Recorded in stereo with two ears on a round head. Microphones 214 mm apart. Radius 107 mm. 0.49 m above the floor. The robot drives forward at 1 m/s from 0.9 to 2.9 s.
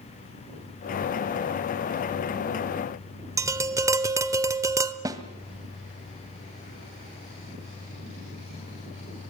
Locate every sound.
3.4 s tapping: 15° right (ahead or behind), 1.1 m
5.0 s a snare drum: 15° right (ahead or behind), 1.7 m